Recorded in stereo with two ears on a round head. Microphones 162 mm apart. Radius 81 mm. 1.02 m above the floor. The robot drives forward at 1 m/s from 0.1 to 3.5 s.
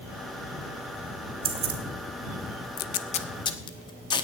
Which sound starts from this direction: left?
Tape being pulled, at 2.8 s.